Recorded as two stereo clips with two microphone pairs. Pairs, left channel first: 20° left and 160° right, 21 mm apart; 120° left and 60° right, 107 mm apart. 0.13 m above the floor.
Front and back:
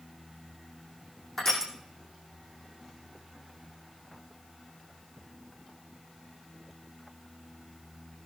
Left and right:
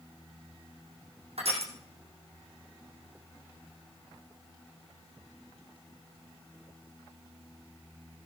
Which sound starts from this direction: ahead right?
Crushing, at 1.4 s.